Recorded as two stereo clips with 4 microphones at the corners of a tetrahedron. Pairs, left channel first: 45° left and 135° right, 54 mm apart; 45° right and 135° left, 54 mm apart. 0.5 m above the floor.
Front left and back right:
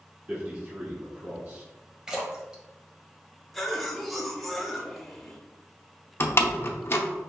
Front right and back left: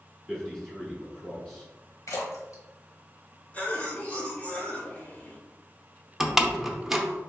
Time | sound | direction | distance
0.3 | a man speaking | 125° right | 1.5 m
2.1 | a splash | 55° right | 1.2 m
3.5 | a cough | 45° right | 1.0 m
6.2 | a door slam | 60° left | 0.6 m